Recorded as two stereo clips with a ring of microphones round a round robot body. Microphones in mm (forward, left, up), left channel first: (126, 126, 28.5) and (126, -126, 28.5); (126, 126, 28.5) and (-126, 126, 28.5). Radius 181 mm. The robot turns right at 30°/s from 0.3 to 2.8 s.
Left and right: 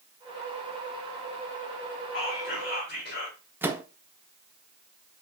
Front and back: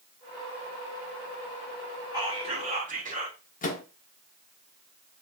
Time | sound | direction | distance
2.1 | whispering | 110° left | 1.2 m
3.6 | a microwave | 15° right | 0.5 m